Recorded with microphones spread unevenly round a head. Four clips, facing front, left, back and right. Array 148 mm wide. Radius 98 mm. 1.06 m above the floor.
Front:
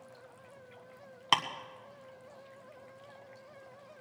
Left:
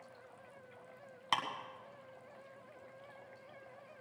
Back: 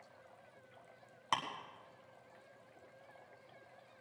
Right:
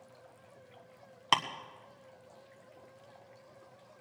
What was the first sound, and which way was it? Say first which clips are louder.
Ticking: right 6 dB, front 7 dB; 65° right.